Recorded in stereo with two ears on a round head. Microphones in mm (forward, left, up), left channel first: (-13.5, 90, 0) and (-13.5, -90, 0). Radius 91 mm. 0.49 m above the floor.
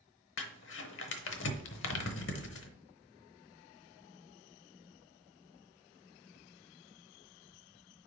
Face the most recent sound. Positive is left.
turn(degrees=60)  # may be behind; listen again after turning